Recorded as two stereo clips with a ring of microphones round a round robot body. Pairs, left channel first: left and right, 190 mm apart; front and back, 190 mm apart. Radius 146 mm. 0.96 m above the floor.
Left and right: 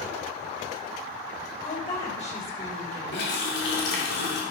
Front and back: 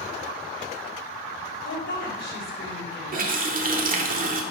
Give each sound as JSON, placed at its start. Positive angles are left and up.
{"t": 1.6, "sound": "a woman speaking", "azimuth_deg": 35, "distance_m": 5.0}
{"t": 3.1, "sound": "a running tap", "azimuth_deg": 135, "distance_m": 2.0}